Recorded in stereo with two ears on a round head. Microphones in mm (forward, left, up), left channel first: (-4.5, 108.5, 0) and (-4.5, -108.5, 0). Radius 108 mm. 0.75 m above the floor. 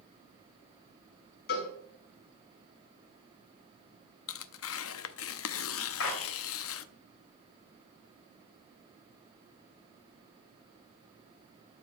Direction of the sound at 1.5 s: 45° left (ahead or behind).